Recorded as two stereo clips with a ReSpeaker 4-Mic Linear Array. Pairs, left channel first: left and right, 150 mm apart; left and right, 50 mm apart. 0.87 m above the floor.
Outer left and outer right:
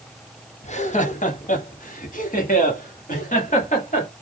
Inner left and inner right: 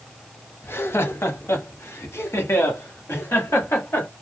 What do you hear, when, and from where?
0.6 s laughter: 50° left (ahead or behind), 1.3 m; by 4.1 s 60° left (ahead or behind), 2.5 m